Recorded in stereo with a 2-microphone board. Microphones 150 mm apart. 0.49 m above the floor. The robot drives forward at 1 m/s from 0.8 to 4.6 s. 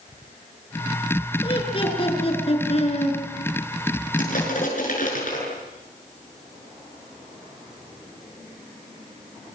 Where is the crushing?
65° left (ahead or behind), 8 m; by 5.4 s 60° left (ahead or behind), 8 m.